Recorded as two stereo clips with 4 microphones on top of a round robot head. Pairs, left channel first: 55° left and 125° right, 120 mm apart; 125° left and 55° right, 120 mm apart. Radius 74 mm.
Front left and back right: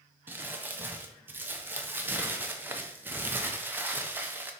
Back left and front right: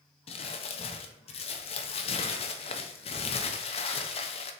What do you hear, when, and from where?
0.3 s crumpling: 160° left, 0.5 m